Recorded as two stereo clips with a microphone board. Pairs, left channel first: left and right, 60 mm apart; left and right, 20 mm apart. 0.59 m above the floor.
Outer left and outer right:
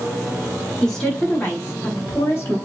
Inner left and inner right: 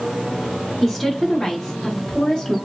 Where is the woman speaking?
15° left (ahead or behind), 1.0 m; by 2.6 s 40° left (ahead or behind), 0.8 m.